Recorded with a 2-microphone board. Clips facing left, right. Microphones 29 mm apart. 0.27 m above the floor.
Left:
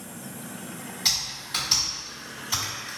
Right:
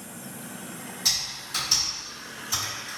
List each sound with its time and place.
1.1 s typing on a keyboard: 25° left (ahead or behind), 1.9 m